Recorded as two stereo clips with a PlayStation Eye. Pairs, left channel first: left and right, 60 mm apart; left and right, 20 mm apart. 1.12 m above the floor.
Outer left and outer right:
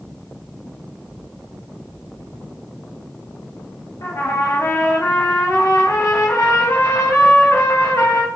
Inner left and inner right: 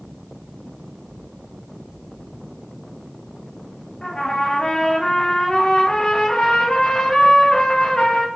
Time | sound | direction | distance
4.0 | a trumpet | 55° left (ahead or behind) | 0.6 m